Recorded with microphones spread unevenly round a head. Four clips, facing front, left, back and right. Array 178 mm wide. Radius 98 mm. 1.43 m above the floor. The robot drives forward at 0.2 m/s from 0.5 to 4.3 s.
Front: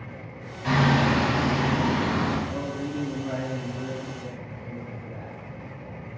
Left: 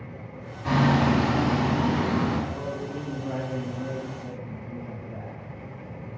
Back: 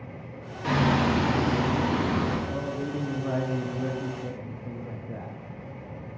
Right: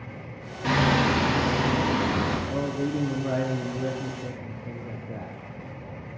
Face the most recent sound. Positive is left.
turn(degrees=-115)